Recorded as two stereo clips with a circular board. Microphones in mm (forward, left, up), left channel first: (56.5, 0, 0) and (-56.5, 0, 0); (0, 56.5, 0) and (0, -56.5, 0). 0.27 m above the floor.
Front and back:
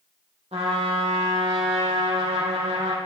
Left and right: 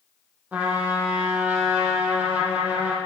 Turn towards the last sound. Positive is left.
turn(degrees=-165)